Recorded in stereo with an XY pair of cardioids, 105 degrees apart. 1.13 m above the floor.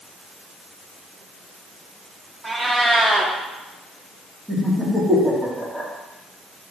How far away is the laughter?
About 2.5 m.